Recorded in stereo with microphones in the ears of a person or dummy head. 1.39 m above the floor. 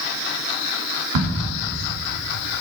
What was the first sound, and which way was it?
A crack, 75° right (ahead or behind).